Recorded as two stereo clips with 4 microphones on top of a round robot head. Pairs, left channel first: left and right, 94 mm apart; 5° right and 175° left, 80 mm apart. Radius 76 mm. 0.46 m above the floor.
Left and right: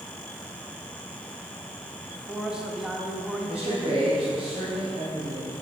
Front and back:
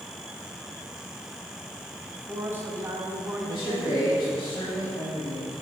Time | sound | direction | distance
2.1 | a man speaking | 165° right | 1.2 m
3.5 | a man speaking | 70° right | 2 m